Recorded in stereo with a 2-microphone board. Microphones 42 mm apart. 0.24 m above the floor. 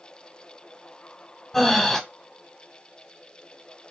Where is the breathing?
5° left (ahead or behind), 0.6 m.